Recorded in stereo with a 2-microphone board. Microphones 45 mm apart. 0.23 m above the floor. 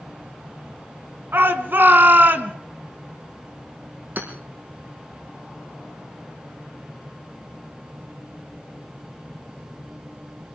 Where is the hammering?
45° right (ahead or behind), 5 m.